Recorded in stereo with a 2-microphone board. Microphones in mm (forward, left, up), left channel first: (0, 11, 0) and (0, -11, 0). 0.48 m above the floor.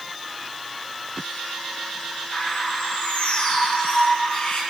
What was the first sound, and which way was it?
A bird, 70° left (ahead or behind).